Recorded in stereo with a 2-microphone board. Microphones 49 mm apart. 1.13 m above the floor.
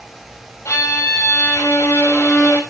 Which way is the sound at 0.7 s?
80° left.